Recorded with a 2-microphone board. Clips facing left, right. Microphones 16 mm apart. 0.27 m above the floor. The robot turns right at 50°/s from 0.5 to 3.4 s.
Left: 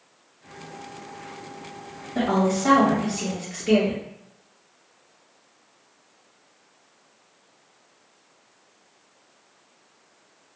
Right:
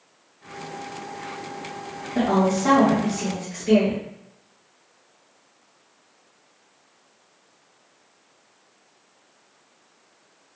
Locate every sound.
2.1 s a woman speaking: 5° left (ahead or behind), 1.0 m; by 4.0 s 25° left (ahead or behind), 1.0 m